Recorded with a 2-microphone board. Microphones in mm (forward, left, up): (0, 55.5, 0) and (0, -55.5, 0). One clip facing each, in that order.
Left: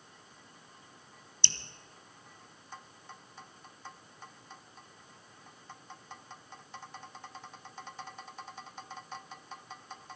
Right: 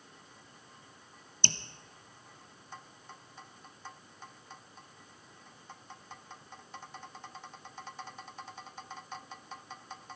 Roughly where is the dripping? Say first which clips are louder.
Right 6 dB; right.